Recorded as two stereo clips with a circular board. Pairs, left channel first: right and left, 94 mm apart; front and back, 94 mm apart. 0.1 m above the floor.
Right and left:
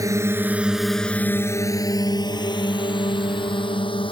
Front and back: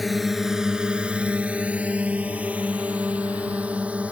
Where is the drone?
90° left; by 4.1 s 105° right.